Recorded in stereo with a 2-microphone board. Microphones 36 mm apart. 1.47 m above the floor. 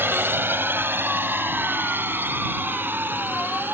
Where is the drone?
70° right (ahead or behind); by 3.8 s 65° right (ahead or behind).